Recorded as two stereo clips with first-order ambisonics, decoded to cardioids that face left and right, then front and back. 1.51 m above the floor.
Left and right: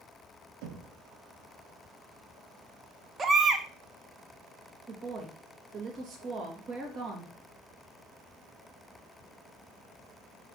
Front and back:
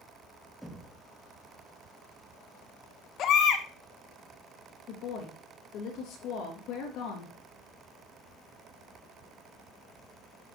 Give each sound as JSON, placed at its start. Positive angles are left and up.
{"t": 0.6, "sound": "knocking", "azimuth_deg": -90, "distance_m": 1.5}
{"t": 3.2, "sound": "a baby crying", "azimuth_deg": -30, "distance_m": 0.8}
{"t": 4.9, "sound": "a woman speaking", "azimuth_deg": -35, "distance_m": 2.5}